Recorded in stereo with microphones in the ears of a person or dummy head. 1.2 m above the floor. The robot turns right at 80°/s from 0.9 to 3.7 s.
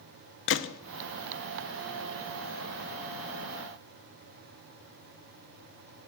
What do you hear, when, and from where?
0.5 s a gunshot: 60° left (ahead or behind), 0.5 m